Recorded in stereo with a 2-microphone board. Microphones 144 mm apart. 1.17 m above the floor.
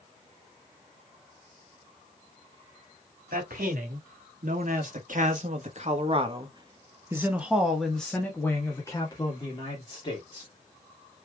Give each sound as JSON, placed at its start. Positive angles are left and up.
{"t": 3.3, "sound": "a man speaking", "side_deg": -80, "distance_m": 2.0}